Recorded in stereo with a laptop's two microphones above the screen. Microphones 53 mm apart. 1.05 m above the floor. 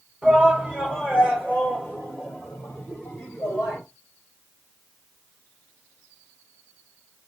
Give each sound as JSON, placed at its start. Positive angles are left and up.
{"t": 0.2, "sound": "a shout", "side_deg": 15, "distance_m": 3.0}